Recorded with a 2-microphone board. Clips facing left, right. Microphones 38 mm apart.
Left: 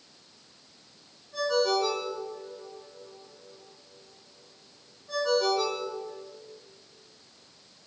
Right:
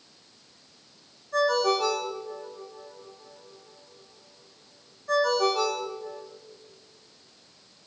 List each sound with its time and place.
1.3 s a ringtone: 70° right (ahead or behind), 3.5 m